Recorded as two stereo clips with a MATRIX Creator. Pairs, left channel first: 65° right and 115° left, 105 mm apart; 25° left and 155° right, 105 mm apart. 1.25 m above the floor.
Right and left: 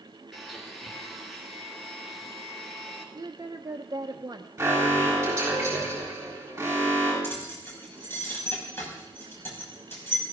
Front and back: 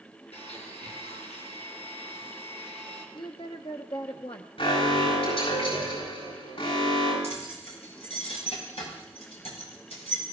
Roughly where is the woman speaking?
Ahead left.